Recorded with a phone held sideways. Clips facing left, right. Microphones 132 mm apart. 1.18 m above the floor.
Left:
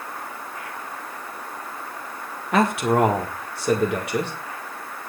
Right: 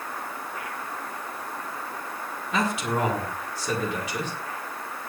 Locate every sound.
2.5 s a man speaking: 60° left (ahead or behind), 1.6 m